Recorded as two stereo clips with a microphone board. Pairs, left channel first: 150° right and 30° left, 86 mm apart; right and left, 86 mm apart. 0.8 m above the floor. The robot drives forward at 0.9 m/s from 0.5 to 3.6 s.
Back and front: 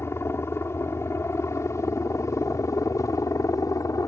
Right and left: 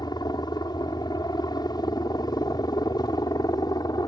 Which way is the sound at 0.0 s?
100° right.